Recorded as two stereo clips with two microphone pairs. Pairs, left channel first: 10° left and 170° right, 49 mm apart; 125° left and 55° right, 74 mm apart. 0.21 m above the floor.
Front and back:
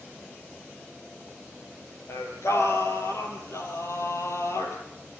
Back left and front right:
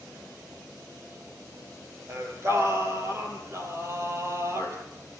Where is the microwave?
I don't hear a microwave.